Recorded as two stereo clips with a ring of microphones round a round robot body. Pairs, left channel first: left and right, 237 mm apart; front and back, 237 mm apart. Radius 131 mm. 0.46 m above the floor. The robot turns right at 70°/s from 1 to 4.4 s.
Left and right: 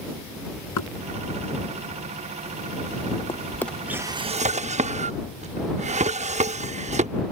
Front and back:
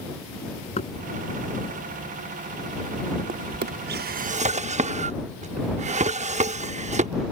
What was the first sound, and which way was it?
Knocking, 65° left.